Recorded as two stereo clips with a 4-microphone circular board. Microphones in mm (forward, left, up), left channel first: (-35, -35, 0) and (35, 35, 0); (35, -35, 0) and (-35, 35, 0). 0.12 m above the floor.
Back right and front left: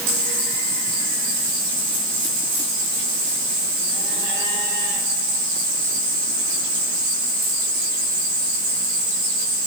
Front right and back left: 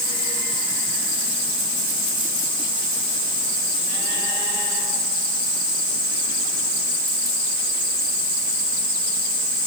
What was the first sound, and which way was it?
Only background noise.